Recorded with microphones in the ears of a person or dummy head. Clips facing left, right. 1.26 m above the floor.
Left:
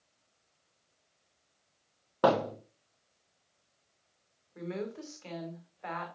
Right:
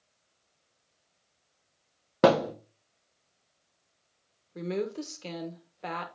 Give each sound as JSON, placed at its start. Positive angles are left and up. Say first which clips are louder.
{"t": 2.2, "sound": "a thud", "louder": "right 5 dB", "side_deg": -30, "distance_m": 0.7}
{"t": 4.5, "sound": "a woman speaking", "louder": "right 6 dB", "side_deg": -40, "distance_m": 1.3}